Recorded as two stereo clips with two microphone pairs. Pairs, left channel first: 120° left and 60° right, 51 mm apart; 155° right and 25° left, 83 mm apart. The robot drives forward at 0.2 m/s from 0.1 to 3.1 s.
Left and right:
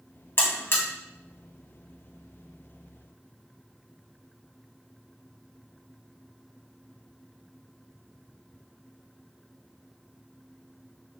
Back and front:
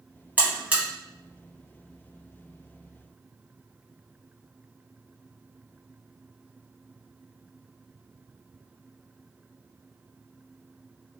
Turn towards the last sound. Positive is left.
turn(degrees=130)